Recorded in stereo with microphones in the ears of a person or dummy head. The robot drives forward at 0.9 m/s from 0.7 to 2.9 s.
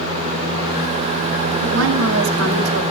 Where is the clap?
I don't hear a clap.